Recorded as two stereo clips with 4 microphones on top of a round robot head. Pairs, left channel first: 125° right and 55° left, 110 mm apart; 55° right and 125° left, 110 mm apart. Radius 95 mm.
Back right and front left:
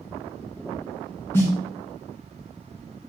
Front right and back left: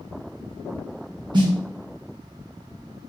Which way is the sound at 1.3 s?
165° left.